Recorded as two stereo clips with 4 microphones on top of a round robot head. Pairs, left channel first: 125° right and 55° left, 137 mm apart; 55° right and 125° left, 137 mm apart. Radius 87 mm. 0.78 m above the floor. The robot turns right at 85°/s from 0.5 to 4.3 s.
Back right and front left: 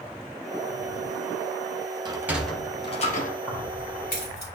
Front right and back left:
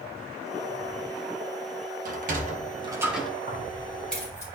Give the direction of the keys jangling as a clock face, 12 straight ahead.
7 o'clock.